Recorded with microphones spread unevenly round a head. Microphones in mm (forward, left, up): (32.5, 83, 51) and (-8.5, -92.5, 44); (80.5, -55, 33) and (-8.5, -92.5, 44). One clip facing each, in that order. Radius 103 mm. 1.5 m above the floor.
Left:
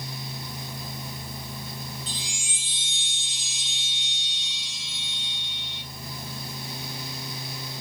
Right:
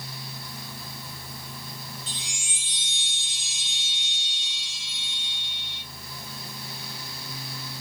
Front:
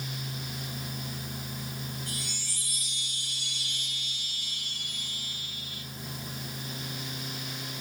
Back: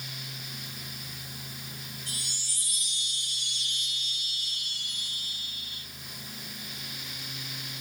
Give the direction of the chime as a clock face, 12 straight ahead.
9 o'clock.